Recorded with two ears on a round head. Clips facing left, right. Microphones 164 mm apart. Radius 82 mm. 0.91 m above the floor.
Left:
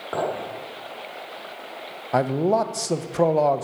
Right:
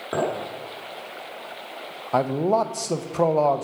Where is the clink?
25° right (ahead or behind), 1.5 m.